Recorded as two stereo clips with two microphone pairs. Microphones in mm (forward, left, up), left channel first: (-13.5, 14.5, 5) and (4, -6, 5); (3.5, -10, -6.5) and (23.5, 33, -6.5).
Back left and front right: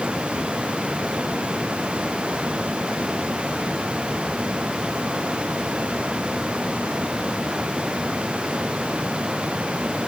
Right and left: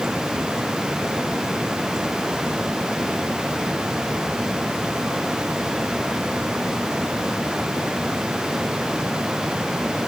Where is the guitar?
No guitar in this recording.